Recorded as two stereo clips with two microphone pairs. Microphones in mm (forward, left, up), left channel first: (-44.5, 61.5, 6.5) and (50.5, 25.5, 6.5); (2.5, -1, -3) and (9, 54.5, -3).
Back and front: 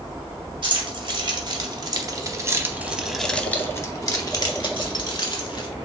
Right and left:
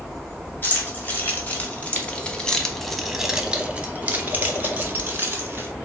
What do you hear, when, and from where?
0.6 s keys jangling: 45° right, 1.5 m; by 5.7 s 130° left, 1.6 m